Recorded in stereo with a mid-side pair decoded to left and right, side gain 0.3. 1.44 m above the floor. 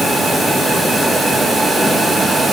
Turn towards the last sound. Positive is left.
No sound to turn to.